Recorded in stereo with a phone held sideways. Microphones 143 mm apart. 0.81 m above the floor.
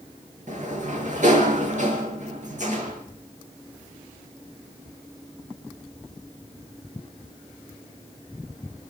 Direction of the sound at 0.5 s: 60° right (ahead or behind).